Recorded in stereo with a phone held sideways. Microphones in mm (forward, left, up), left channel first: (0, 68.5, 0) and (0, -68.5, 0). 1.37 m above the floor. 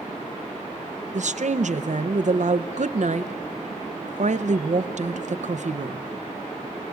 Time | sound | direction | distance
1.1 | a woman speaking | 65° right (ahead or behind) | 0.7 m